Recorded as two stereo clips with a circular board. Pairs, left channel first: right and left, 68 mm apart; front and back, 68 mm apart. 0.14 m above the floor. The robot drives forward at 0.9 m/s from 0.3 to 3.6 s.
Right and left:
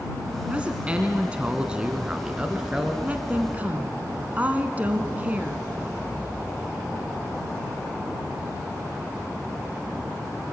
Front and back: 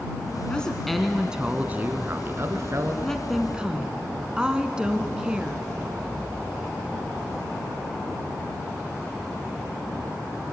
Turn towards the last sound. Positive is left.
turn(degrees=120)